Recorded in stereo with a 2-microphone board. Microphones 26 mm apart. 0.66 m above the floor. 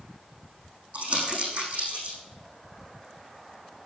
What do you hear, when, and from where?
0.9 s crumpling: 55° right (ahead or behind), 6 m